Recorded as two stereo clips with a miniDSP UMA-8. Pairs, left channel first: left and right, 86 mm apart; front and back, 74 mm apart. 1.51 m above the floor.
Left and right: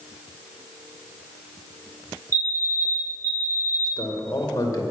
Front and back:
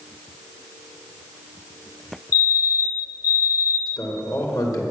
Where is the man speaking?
35° left, 2 m.